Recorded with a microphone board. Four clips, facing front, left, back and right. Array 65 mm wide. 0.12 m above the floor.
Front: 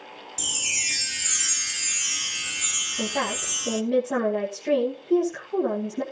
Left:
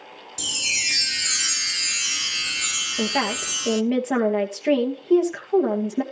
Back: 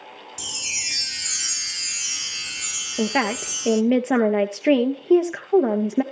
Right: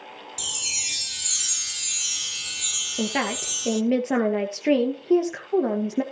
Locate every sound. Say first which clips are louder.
0.4 s a chime: left 10 dB, front 3 dB; 80° left, 0.7 m
3.0 s a woman speaking: left 1 dB, back 6 dB; 175° right, 2 m